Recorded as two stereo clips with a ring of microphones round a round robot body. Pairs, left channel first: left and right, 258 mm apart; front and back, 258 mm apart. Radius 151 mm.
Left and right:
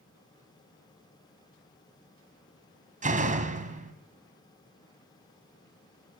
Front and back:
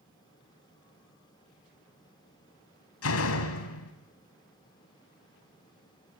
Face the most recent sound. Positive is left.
turn(degrees=-30)